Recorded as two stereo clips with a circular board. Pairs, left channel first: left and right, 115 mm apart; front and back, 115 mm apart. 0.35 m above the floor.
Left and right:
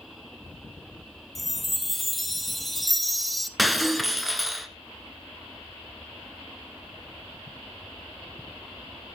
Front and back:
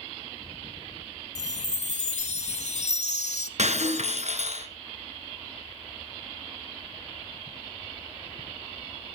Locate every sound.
1.4 s a chime: straight ahead, 1.3 m
3.6 s breaking glass: straight behind, 1.6 m